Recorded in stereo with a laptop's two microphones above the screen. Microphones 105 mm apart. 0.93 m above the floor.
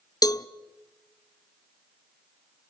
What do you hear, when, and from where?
0.2 s a cowbell: 35° left (ahead or behind), 0.6 m